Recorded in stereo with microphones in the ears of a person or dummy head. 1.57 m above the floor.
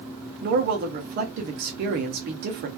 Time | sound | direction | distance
0.4 | a man speaking | 45° right (ahead or behind) | 0.5 m